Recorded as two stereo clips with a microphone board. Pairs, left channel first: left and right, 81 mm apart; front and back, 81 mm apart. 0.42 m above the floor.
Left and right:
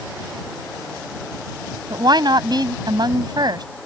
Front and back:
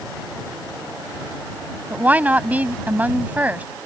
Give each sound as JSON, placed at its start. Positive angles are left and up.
{"t": 1.9, "sound": "a woman speaking", "azimuth_deg": -110}